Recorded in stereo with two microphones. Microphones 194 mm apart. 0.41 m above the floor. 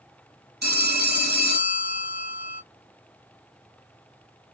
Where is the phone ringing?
55° right (ahead or behind), 0.8 m.